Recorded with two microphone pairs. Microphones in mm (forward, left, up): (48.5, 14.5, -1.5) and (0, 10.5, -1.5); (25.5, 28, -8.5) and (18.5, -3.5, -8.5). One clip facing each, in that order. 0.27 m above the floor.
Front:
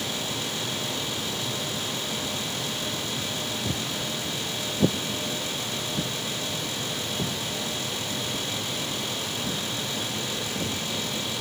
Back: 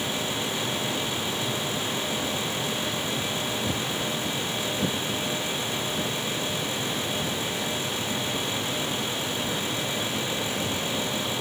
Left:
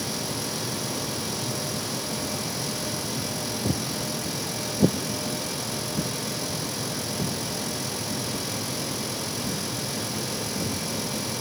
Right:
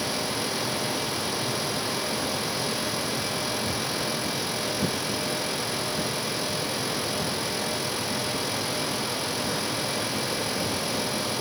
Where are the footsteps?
90° left, 0.7 m; by 10.8 s 10° left, 4.5 m.